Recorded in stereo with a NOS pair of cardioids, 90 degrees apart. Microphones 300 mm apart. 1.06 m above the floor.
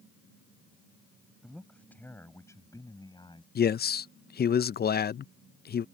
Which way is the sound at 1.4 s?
Straight ahead.